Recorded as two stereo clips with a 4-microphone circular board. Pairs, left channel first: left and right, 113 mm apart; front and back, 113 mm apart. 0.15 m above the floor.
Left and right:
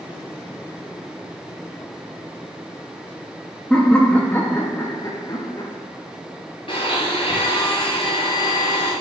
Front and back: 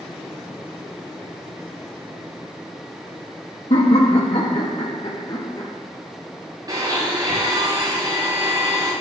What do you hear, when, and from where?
3.7 s laughter: 5° left, 3.5 m; by 5.7 s 50° left, 3.5 m
6.7 s a blender: 125° left, 6.5 m